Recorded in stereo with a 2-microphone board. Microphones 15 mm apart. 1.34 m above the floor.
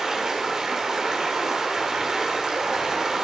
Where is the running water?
35° right (ahead or behind), 4.5 m.